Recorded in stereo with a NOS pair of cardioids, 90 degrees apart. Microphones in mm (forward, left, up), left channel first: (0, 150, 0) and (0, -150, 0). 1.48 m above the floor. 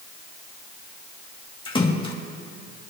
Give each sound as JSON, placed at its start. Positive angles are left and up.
{"t": 1.6, "sound": "a splash", "azimuth_deg": 15, "distance_m": 2.0}